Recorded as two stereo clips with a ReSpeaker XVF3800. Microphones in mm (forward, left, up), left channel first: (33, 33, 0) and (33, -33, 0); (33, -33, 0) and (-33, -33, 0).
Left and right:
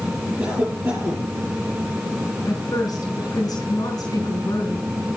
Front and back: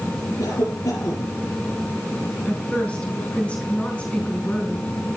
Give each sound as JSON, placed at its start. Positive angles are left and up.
{"t": 0.4, "sound": "a cough", "azimuth_deg": -20, "distance_m": 7.0}
{"t": 2.5, "sound": "a woman speaking", "azimuth_deg": 70, "distance_m": 3.5}